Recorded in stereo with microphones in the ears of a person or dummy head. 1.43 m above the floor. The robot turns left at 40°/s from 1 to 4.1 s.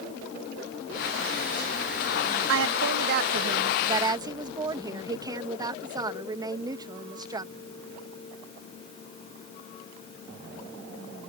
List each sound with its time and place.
2.5 s a woman speaking: 100° right; by 7.5 s 165° right